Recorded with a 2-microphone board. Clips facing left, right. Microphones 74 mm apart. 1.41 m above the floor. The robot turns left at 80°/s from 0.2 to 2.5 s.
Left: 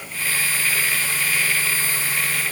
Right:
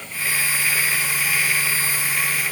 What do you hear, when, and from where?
Only background noise.